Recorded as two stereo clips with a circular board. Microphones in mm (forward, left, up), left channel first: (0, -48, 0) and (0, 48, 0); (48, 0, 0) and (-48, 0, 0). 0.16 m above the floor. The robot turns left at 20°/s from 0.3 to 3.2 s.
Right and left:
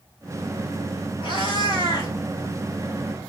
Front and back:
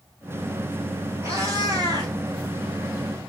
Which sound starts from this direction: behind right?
A cat meowing, at 1.2 s.